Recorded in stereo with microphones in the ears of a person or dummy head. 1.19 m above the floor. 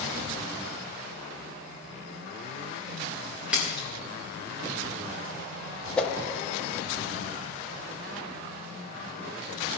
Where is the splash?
5° right (ahead or behind), 2 m.